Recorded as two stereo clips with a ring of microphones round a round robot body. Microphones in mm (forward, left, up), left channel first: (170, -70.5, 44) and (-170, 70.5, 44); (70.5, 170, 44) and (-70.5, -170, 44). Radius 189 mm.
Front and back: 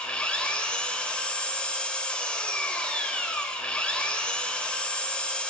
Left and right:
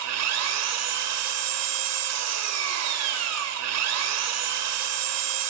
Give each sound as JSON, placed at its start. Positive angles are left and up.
{"t": 0.0, "sound": "an engine running", "azimuth_deg": -110, "distance_m": 1.5}